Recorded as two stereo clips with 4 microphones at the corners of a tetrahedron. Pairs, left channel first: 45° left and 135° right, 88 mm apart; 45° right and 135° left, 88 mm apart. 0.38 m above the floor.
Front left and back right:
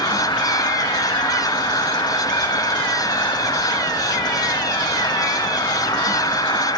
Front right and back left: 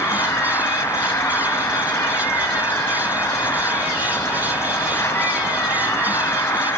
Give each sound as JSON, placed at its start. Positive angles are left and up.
{"t": 0.0, "sound": "an insect", "azimuth_deg": 10, "distance_m": 1.6}